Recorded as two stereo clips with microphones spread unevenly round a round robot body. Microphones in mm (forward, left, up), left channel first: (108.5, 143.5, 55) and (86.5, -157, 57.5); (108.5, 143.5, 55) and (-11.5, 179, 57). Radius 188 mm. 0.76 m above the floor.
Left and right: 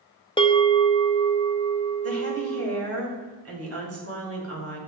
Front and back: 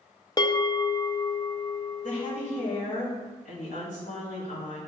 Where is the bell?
20° left, 1.0 m.